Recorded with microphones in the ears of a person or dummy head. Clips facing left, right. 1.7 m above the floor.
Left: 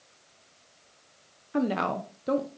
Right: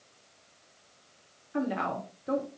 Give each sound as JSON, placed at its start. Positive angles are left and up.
{"t": 1.5, "sound": "a woman speaking", "side_deg": 55, "distance_m": 0.5}